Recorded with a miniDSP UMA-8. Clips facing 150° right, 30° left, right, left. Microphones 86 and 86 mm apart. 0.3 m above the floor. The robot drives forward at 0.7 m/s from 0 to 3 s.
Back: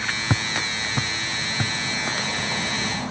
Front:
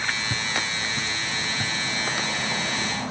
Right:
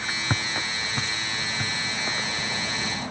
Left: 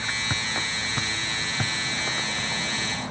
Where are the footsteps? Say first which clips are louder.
Back 2 dB, right 1 dB; 155° right, 0.8 m; by 2.5 s 145° left, 2.0 m.